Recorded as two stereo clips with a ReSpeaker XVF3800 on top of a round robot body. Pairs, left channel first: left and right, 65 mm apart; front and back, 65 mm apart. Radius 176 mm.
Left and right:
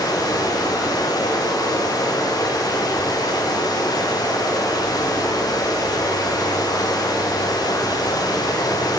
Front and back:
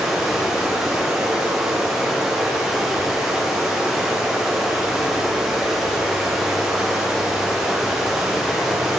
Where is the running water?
95° left, 2.5 m.